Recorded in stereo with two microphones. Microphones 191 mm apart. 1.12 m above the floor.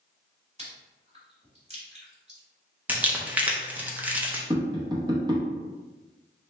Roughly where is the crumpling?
Centre.